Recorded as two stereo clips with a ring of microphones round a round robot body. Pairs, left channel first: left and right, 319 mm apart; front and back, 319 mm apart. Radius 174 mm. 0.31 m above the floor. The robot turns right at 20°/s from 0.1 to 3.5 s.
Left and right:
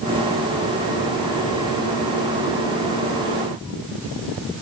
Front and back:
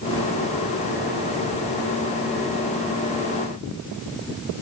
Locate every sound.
Only background noise.